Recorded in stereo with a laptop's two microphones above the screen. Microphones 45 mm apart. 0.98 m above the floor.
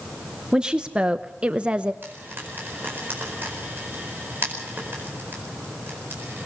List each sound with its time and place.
0.5 s a woman speaking: 15° right (ahead or behind), 0.7 m; by 1.9 s 20° right (ahead or behind), 0.9 m
2.0 s frying: 50° right (ahead or behind), 4.5 m